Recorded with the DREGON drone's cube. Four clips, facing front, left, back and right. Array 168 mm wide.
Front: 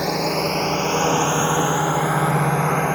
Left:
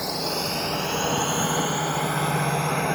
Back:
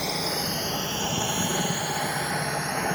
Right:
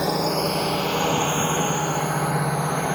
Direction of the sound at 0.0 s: 45° right.